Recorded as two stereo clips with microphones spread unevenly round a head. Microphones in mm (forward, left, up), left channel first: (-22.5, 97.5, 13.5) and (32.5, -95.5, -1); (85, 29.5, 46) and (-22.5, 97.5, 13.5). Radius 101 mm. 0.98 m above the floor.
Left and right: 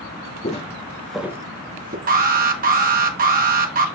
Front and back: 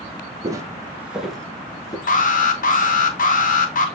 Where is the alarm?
40° right, 1.4 m.